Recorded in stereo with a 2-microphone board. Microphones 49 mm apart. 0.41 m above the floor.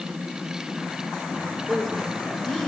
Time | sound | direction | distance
1.7 | a woman speaking | 5° right (ahead or behind) | 1.2 m